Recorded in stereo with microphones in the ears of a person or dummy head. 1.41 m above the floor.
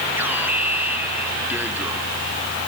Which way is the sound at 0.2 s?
10° right (ahead or behind).